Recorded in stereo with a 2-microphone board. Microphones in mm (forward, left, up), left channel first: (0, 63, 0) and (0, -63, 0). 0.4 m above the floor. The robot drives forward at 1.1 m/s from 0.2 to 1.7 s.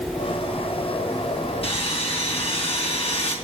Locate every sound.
1.6 s sawing: 50° left (ahead or behind), 3.5 m